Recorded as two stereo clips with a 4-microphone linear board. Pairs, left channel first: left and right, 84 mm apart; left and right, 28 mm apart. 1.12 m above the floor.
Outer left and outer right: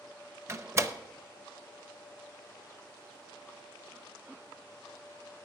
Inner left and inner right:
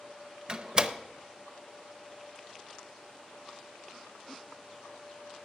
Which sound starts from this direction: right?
A door slam, at 0.5 s.